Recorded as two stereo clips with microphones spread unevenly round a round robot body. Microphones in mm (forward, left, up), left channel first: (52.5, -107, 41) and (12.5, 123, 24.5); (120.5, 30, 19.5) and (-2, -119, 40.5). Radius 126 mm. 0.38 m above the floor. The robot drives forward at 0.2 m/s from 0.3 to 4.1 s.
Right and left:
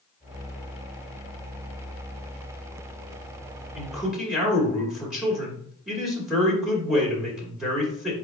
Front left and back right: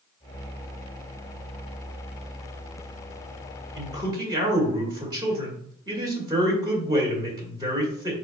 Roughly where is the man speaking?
Behind.